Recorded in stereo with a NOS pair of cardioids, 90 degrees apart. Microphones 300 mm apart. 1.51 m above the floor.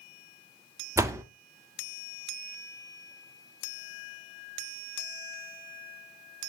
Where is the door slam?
10° right, 1.3 m.